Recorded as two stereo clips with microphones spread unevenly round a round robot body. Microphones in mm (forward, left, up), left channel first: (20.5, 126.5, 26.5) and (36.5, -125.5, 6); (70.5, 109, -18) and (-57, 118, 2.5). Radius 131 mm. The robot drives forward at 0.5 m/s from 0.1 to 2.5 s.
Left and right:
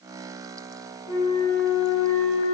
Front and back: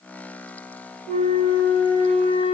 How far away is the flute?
About 5 m.